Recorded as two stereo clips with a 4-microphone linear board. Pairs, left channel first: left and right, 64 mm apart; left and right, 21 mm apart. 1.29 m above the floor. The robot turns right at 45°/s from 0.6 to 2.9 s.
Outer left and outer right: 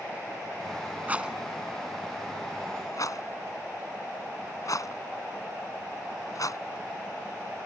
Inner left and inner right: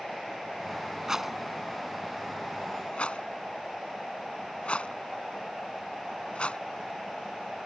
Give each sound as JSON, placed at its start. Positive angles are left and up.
{"t": 1.1, "sound": "a rattle", "side_deg": -25}